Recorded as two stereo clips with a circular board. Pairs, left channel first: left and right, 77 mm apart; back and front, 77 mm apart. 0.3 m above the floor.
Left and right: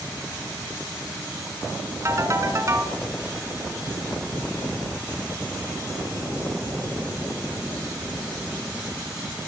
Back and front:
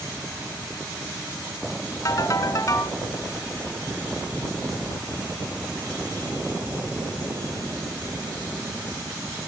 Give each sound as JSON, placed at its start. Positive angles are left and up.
{"t": 2.0, "sound": "a ringtone", "azimuth_deg": -140, "distance_m": 2.5}